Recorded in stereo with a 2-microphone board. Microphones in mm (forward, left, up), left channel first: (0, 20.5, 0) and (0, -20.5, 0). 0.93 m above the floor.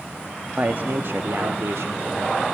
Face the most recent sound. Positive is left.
turn(degrees=-80)